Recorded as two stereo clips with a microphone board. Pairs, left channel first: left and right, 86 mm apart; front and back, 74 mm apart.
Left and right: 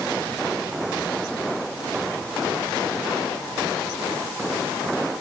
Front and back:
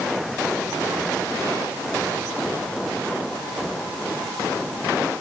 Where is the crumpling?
I don't hear crumpling.